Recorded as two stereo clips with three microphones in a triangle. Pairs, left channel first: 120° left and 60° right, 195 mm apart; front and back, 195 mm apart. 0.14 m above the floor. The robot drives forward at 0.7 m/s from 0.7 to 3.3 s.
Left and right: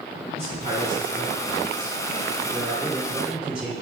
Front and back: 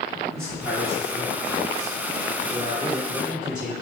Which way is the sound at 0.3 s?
85° right.